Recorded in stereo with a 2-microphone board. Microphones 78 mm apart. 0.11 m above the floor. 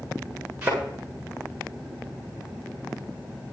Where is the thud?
15° right (ahead or behind), 8.5 m.